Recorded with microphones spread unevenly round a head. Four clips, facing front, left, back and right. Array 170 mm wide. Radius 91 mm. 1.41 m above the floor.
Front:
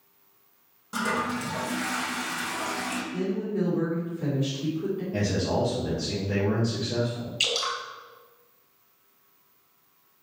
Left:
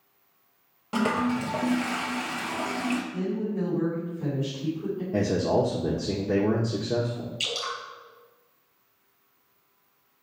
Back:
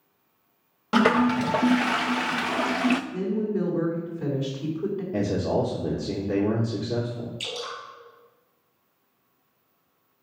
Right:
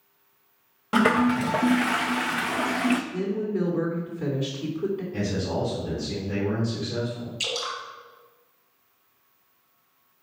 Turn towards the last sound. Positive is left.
turn(degrees=-35)